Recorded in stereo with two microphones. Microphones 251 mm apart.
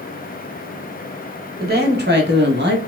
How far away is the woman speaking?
About 1.4 m.